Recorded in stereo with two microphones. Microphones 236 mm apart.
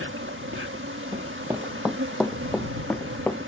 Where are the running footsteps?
15° right (ahead or behind); by 3.4 s 10° left (ahead or behind).